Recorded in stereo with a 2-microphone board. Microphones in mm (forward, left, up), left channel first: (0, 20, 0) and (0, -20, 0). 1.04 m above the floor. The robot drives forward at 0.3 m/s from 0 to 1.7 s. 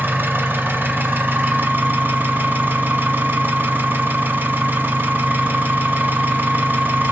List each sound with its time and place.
0.0 s an engine running: 60° right (ahead or behind), 0.8 m; by 7.1 s 50° right (ahead or behind), 0.9 m